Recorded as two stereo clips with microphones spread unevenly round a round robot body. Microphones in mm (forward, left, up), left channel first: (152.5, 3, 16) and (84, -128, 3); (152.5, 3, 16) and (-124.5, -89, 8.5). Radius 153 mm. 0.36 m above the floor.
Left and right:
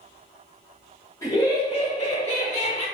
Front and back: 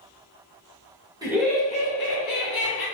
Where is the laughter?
130° left, 1.0 m; by 2.9 s 25° left, 1.8 m.